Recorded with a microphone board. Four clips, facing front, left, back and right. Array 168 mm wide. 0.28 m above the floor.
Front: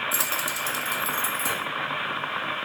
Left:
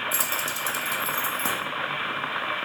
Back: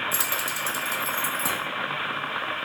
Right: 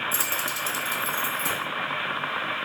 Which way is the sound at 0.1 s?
145° right.